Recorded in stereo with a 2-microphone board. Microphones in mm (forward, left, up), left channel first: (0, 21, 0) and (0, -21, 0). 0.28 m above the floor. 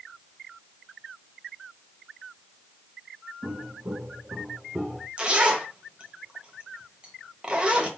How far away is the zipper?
About 0.9 m.